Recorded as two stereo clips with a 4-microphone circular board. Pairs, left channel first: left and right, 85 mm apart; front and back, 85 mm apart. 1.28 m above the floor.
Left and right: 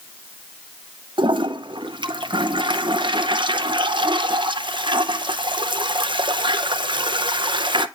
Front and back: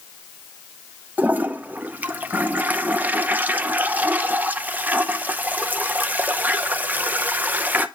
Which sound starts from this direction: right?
A toilet flushing, at 1.2 s.